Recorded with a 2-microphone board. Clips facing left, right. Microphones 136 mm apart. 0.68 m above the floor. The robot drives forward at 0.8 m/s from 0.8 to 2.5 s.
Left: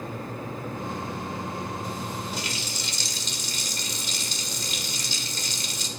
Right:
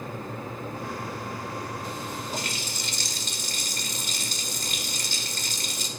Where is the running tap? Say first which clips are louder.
Even; 50° right (ahead or behind), 1.7 m; by 5.9 s 55° right (ahead or behind), 1.7 m.